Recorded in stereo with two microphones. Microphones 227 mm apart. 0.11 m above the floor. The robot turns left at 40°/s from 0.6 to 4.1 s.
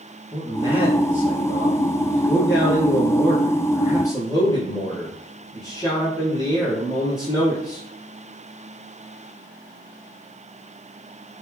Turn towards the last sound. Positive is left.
turn(degrees=15)